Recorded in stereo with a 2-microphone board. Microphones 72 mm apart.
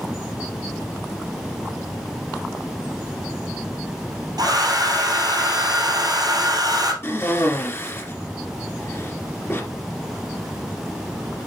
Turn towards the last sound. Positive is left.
turn(degrees=35)  # may be behind; listen again after turning